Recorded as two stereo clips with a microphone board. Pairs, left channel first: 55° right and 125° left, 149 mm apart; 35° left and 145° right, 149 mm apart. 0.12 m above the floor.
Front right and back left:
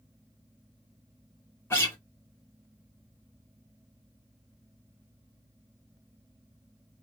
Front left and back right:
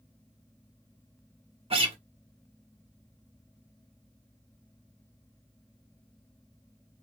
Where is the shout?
No shout in this recording.